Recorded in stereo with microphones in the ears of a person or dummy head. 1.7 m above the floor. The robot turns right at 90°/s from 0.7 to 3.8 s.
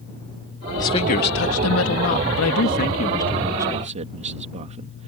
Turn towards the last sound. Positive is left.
turn(degrees=-145)